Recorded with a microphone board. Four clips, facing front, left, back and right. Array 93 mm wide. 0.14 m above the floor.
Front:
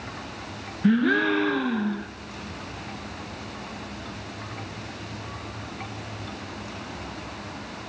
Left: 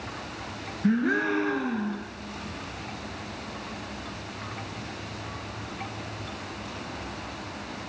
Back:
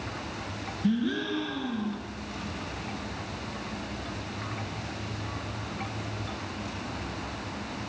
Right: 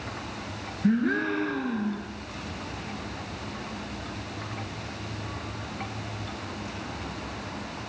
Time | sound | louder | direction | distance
0.8 | a gasp | even, front 8 dB | 10° left | 1.9 m